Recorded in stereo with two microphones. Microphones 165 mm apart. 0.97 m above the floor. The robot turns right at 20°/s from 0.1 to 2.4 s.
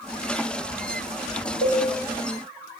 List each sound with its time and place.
1.6 s a cowbell: 65° left (ahead or behind), 2 m; by 1.8 s 70° left (ahead or behind), 2 m